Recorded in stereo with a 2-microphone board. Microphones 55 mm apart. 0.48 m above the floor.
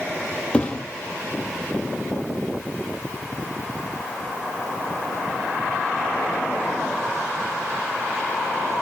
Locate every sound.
0.5 s a thud: 20° left (ahead or behind), 5 m